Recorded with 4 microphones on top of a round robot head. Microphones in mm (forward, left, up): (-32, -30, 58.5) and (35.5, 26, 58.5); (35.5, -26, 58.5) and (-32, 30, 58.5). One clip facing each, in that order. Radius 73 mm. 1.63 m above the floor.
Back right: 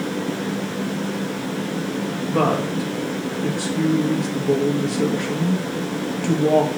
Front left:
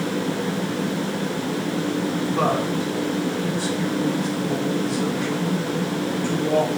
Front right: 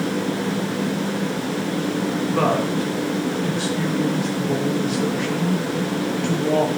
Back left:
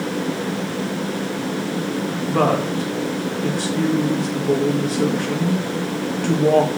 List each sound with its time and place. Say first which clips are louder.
2.3 s a woman speaking: back right 4 dB, back left 3 dB; 170° right, 2.5 m